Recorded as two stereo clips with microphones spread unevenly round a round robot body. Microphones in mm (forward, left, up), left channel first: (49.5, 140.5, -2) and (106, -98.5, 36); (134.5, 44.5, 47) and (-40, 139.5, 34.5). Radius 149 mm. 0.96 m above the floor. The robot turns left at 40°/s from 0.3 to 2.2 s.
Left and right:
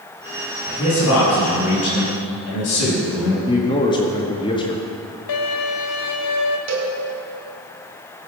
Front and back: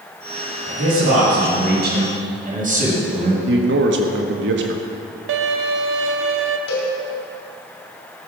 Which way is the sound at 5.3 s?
145° left.